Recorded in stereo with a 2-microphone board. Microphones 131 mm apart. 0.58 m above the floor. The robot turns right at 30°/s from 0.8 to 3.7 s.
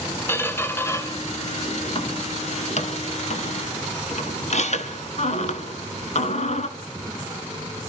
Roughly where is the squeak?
Centre.